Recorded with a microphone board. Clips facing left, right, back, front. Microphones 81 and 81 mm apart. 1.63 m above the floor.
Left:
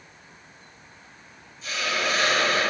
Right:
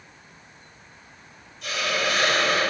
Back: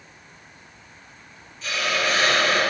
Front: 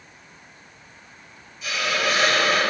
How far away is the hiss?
About 0.7 m.